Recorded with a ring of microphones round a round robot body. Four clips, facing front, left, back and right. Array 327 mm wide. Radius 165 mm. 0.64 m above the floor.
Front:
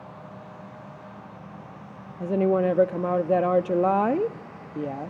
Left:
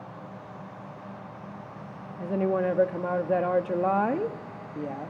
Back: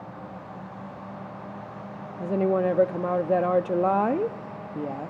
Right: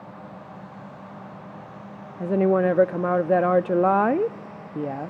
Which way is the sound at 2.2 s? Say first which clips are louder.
Right 6 dB, front 1 dB; 75° right.